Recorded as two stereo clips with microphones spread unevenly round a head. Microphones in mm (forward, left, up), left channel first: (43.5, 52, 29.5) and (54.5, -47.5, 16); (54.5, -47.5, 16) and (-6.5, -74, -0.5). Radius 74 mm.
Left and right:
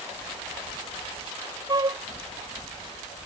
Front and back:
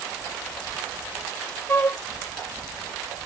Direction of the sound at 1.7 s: 30° right.